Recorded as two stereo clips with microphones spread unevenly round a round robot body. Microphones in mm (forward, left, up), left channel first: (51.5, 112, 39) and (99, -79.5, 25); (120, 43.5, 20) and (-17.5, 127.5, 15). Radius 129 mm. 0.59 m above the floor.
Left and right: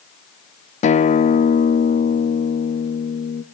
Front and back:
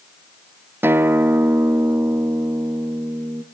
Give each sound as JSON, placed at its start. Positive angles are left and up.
{"t": 0.8, "sound": "a guitar", "azimuth_deg": 85, "distance_m": 0.7}